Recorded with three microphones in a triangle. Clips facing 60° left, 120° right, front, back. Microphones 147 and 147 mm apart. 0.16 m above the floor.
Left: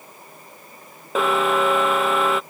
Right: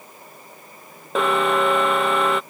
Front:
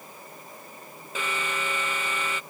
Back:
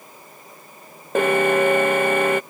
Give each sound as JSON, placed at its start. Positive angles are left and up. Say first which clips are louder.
{"t": 1.1, "sound": "an alarm", "louder": "even, back 16 dB", "azimuth_deg": 150}